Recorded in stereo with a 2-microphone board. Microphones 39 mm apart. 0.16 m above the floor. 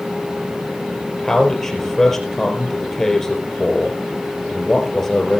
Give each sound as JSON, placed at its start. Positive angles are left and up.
{"t": 1.2, "sound": "a man speaking", "side_deg": 10, "distance_m": 3.5}